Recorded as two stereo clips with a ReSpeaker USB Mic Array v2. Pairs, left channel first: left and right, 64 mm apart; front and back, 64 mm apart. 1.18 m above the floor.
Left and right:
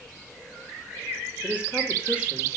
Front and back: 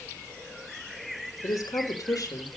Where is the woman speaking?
20° right, 3.5 m.